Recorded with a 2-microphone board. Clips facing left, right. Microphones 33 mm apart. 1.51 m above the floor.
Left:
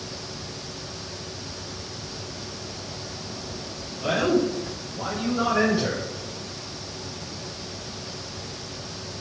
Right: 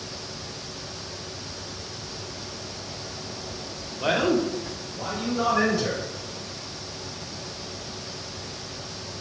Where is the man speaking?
45° right (ahead or behind), 0.6 m; by 6.0 s 30° left (ahead or behind), 1.8 m.